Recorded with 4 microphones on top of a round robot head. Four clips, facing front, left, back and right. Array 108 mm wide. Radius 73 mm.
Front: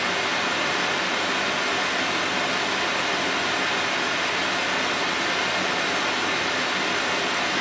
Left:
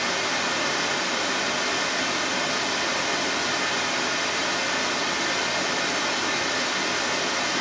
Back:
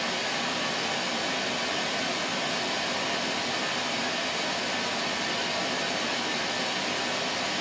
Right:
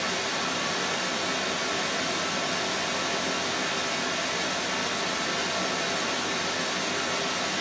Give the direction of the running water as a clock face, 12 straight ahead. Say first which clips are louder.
Left 3 dB, front 6 dB; 11 o'clock.